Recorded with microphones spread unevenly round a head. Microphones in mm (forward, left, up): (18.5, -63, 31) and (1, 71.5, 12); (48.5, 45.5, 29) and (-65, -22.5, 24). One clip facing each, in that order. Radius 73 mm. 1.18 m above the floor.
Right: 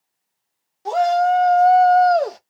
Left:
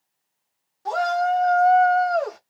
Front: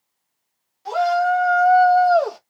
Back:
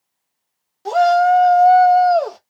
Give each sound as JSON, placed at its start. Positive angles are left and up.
{"t": 0.8, "sound": "a shout", "azimuth_deg": -150, "distance_m": 0.9}